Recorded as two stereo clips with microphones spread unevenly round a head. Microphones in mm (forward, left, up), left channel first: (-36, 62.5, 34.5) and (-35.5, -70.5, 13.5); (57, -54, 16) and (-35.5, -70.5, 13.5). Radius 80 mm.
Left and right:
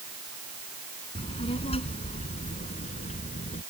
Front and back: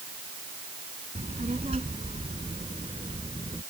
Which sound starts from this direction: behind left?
A child speaking, at 1.1 s.